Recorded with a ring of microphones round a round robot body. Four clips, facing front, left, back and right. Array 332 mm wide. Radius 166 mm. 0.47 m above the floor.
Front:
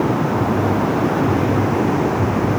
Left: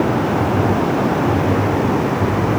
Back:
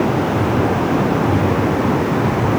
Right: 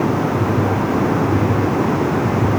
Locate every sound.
Only background noise.